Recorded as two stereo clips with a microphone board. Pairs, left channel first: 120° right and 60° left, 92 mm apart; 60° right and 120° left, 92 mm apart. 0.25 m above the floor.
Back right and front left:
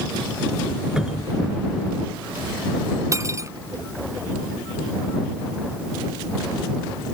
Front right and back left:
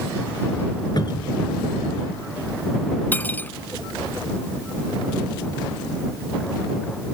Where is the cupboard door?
25° right.